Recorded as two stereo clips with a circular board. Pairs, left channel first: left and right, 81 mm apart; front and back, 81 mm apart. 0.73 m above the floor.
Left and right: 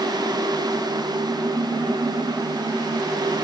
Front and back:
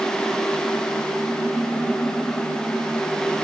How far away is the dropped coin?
I don't hear a dropped coin.